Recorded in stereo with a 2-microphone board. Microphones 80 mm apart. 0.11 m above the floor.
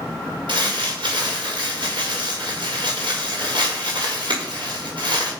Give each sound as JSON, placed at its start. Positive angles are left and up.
{"t": 0.5, "sound": "crumpling", "side_deg": -80, "distance_m": 3.0}